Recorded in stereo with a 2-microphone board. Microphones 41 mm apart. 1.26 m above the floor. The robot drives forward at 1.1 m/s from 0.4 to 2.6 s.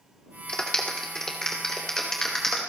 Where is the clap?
25° left (ahead or behind), 2.5 m; by 2.6 s 10° left (ahead or behind), 4.5 m.